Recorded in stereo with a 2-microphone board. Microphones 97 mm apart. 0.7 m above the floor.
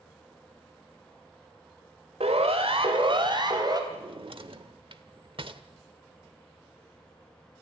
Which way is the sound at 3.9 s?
55° right (ahead or behind).